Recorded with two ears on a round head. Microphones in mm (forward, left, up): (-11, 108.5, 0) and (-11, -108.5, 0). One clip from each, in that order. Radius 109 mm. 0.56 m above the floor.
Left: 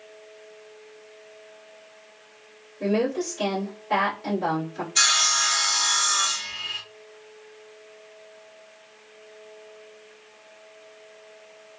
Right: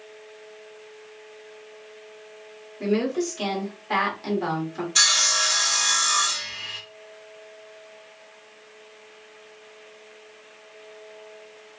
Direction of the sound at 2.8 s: 40° right (ahead or behind).